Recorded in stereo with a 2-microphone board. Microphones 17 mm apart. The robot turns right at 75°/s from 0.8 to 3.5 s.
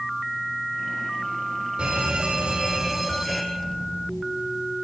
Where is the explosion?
30° left (ahead or behind), 1.4 m.